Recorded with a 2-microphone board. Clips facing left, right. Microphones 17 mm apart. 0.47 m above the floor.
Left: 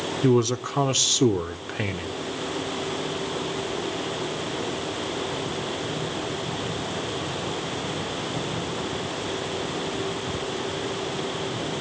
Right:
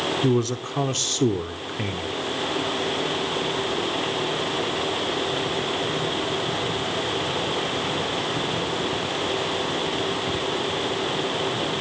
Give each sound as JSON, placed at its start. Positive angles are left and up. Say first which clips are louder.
{"t": 0.2, "sound": "a man speaking", "louder": "left 1 dB", "side_deg": 20, "distance_m": 0.9}